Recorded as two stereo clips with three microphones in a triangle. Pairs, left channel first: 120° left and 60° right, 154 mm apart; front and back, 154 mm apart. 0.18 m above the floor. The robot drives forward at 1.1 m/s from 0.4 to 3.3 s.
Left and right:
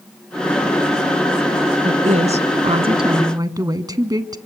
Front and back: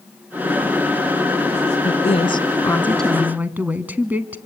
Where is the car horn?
I don't hear a car horn.